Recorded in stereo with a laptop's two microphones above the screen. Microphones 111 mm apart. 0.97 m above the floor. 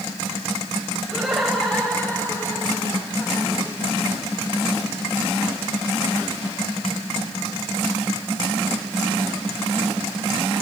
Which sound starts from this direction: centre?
Laughter, at 1.1 s.